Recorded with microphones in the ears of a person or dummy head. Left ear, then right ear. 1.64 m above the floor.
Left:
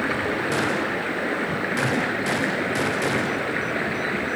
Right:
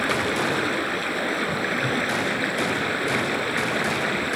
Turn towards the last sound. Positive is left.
turn(degrees=-25)  # may be behind; listen again after turning